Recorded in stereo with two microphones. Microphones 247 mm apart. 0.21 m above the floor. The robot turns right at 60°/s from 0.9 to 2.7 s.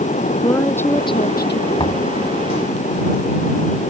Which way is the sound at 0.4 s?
10° left.